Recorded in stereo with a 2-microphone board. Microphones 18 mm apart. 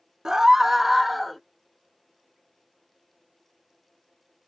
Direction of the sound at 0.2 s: 35° right (ahead or behind).